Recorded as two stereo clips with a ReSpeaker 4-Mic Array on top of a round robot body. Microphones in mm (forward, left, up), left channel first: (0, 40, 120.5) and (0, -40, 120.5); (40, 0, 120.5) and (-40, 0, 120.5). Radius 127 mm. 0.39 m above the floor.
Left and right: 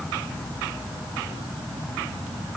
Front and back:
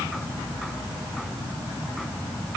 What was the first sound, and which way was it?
Only background noise.